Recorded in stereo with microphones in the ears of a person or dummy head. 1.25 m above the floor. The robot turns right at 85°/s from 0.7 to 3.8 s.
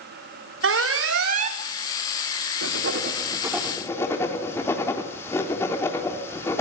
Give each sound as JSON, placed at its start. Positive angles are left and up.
{"t": 0.6, "sound": "an alarm", "azimuth_deg": -100, "distance_m": 2.5}
{"t": 2.6, "sound": "writing", "side_deg": -85, "distance_m": 3.0}